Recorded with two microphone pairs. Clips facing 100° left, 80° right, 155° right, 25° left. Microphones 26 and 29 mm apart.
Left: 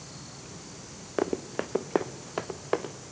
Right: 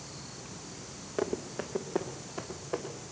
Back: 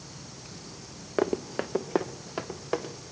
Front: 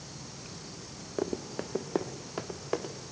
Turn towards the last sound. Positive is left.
turn(degrees=120)